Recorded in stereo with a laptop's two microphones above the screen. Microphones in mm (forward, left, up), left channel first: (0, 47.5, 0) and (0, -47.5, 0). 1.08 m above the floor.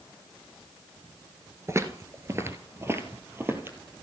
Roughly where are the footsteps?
Right.